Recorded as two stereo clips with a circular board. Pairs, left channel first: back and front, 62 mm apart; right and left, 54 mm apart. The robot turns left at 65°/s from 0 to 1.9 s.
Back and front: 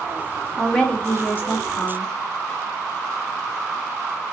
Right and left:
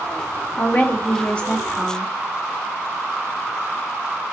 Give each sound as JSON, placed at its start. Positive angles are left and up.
{"t": 0.6, "sound": "a woman speaking", "azimuth_deg": -90, "distance_m": 0.5}